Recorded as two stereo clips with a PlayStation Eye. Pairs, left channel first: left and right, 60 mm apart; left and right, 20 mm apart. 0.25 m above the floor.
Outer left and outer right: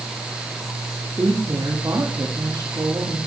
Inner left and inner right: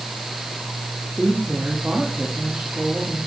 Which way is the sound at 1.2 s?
65° right (ahead or behind).